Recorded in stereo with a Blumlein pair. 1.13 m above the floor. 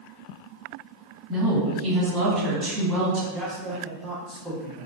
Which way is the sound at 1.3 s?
5° right.